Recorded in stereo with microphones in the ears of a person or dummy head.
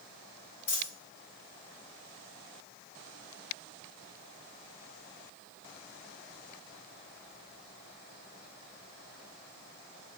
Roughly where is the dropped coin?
Left.